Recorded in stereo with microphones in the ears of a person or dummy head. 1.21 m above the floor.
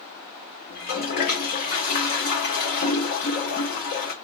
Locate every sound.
0.7 s a toilet flushing: 50° left (ahead or behind), 1.4 m